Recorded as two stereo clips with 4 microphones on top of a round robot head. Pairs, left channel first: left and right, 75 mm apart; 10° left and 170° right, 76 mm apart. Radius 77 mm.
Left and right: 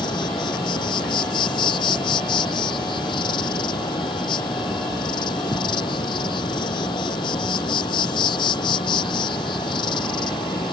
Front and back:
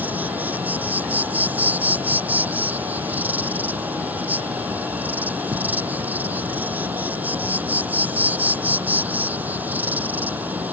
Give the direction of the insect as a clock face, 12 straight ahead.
8 o'clock.